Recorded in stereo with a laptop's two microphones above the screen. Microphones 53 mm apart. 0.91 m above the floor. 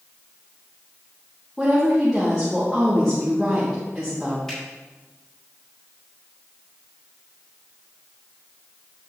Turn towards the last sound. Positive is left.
turn(degrees=15)  # may be behind; listen again after turning